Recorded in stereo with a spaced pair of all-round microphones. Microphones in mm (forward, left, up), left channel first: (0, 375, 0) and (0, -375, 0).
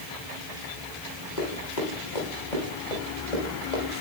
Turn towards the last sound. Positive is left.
turn(degrees=75)  # may be behind; listen again after turning